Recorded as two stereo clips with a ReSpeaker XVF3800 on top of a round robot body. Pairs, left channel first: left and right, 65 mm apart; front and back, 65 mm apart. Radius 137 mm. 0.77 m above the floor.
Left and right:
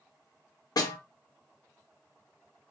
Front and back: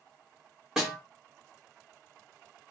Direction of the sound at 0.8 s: 100° left.